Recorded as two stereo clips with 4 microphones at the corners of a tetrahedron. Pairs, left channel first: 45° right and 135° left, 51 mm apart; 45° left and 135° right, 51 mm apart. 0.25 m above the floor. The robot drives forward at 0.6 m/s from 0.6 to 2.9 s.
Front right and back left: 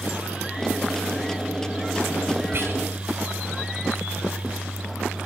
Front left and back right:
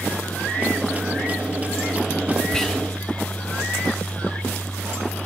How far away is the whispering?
About 2.5 m.